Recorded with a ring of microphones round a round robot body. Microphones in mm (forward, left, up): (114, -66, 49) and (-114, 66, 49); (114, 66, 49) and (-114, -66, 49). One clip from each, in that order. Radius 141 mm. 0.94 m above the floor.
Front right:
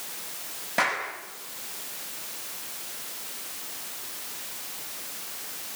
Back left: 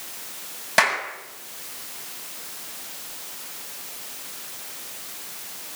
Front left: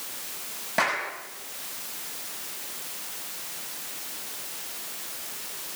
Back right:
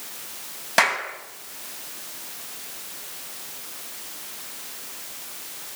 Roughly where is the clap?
Behind.